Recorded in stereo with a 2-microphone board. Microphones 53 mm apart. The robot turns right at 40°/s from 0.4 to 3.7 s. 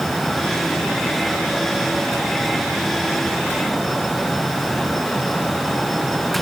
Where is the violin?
I don't hear a violin.